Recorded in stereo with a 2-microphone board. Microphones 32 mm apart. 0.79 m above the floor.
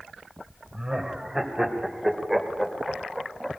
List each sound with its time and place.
0.7 s laughter: 15° right (ahead or behind), 3.5 m; by 3.5 s 15° left (ahead or behind), 2.5 m